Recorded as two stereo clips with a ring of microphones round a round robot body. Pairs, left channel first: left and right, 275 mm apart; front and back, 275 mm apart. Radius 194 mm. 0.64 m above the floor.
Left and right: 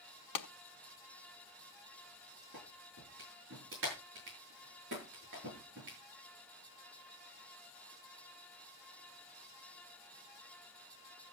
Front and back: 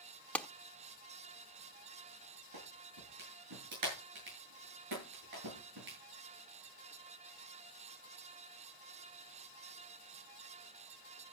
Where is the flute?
I don't hear a flute.